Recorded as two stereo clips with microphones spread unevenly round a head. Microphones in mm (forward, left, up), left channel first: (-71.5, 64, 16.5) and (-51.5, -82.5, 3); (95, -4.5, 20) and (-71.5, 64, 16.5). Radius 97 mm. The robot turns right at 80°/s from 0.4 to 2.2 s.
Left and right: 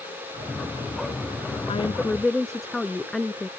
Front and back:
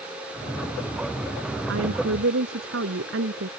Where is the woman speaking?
140° left; by 3.5 s 175° right.